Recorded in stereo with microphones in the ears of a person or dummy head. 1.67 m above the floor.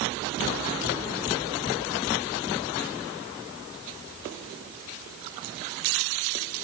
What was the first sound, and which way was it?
Only background noise.